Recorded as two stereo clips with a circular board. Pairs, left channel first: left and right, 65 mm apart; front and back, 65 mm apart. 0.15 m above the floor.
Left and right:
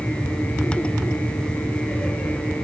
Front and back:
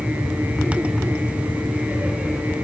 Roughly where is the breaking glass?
I don't hear breaking glass.